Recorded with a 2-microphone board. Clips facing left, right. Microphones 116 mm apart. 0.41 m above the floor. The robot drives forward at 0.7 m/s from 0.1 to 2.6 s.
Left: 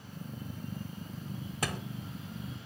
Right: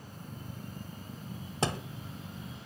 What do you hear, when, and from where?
1.6 s a thud: 30° right (ahead or behind), 1.4 m; by 1.8 s 25° right (ahead or behind), 1.5 m